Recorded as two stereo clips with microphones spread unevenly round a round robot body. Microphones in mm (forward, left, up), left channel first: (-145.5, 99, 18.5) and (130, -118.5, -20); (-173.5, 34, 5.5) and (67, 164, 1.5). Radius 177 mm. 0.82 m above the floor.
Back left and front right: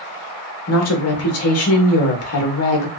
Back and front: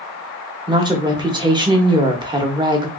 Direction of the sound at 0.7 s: 100° left.